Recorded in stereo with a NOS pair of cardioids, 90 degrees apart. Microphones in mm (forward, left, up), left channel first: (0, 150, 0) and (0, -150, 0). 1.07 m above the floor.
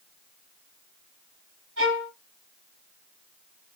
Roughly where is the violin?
Ahead right.